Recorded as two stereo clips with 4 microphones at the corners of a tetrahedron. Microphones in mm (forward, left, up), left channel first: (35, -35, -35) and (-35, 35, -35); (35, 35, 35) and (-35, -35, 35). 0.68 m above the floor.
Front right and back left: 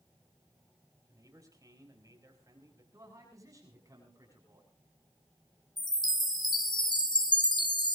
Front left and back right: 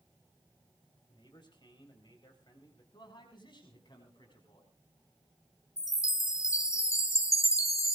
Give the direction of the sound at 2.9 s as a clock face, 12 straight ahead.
9 o'clock.